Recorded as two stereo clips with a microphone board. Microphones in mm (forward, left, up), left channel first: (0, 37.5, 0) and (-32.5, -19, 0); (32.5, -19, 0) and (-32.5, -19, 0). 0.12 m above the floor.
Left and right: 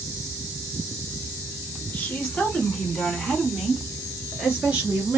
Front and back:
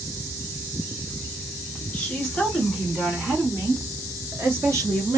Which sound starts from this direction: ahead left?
A woman speaking, at 1.9 s.